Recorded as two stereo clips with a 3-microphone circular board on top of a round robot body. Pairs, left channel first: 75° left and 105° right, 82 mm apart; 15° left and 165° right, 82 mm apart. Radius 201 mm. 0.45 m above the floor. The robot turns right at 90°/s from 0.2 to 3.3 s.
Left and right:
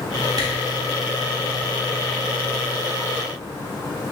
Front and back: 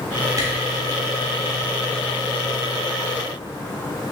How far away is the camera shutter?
About 1.1 m.